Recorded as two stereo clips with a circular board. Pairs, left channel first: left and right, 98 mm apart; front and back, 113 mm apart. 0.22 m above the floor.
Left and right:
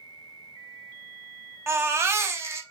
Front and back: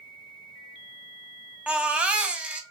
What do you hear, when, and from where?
1.7 s a baby crying: 110° right, 0.5 m